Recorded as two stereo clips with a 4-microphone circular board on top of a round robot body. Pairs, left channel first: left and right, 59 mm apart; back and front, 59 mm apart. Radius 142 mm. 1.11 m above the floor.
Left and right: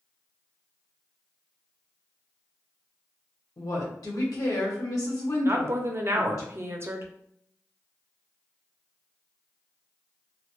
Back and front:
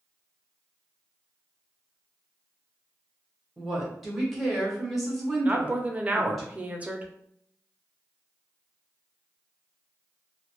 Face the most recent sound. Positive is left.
turn(degrees=-60)